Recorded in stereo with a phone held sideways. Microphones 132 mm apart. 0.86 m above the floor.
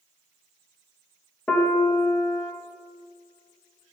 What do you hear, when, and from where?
1.5 s a piano: 15° left (ahead or behind), 0.9 m